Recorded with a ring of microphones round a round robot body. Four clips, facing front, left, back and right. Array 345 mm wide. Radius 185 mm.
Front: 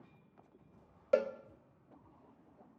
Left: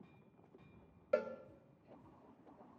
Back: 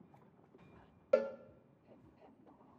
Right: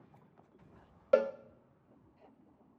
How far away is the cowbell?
About 1.1 m.